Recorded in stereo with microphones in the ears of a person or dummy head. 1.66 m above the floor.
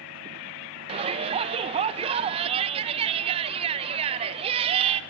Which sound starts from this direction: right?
A shout, at 0.9 s.